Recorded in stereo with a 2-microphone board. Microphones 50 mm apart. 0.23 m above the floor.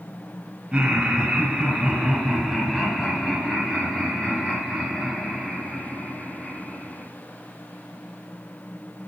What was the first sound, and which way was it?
Laughter, 15° right (ahead or behind).